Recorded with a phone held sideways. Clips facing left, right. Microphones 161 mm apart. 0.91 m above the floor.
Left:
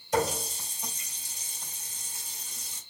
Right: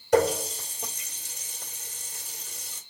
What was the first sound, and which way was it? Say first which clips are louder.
A running tap: right 6 dB; 65° right (ahead or behind).